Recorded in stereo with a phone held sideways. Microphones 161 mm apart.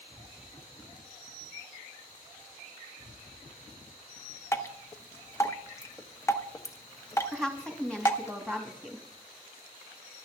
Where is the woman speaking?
5° left (ahead or behind), 3 m.